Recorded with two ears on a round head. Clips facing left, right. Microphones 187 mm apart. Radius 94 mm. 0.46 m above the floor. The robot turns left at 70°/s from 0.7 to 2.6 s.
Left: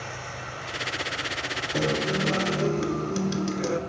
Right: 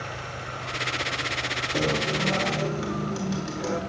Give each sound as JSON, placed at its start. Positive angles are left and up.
{"t": 1.7, "sound": "a guitar", "azimuth_deg": 175, "distance_m": 1.2}